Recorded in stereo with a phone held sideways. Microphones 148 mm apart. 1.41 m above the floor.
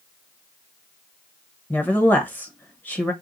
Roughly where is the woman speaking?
Centre.